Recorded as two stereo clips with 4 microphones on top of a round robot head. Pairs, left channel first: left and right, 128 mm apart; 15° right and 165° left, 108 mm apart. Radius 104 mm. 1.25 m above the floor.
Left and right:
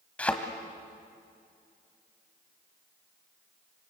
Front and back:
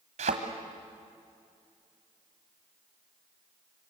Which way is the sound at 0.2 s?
170° left.